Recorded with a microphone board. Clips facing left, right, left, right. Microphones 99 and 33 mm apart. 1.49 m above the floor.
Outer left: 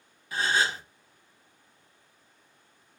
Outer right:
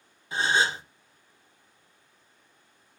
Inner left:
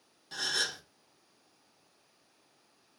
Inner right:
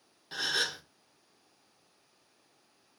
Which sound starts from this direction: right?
A gasp, at 0.3 s.